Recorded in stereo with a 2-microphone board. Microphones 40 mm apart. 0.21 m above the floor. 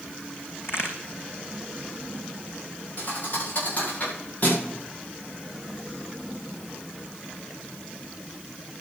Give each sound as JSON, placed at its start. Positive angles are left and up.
{"t": 0.6, "sound": "a crack", "side_deg": 80, "distance_m": 4.0}
{"t": 3.0, "sound": "a thud", "side_deg": 45, "distance_m": 7.5}